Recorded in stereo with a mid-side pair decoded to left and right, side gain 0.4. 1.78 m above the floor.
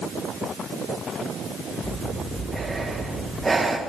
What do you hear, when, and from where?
1.8 s breathing: 20° right, 2.0 m